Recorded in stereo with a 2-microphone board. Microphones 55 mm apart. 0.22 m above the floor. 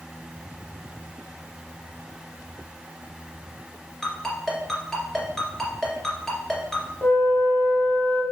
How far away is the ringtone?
About 2 m.